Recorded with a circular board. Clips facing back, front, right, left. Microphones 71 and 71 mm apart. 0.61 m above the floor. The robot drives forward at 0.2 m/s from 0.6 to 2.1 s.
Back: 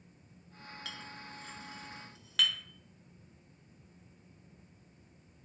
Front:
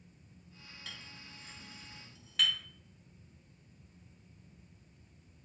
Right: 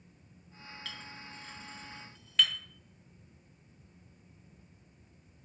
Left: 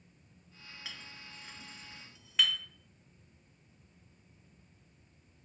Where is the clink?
165° left, 0.8 m; by 2.6 s 170° left, 1.0 m.